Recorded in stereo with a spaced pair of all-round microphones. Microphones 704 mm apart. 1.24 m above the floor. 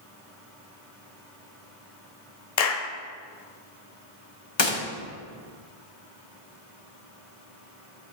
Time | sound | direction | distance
2.6 | a clap | 60° left (ahead or behind) | 0.7 m
4.6 | a gunshot | 40° left (ahead or behind) | 0.9 m